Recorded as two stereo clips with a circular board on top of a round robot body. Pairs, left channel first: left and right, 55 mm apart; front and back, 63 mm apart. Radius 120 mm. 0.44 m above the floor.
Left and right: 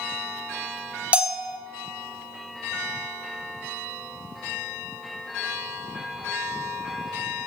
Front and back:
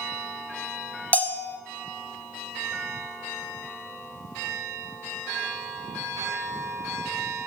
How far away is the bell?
About 1.2 m.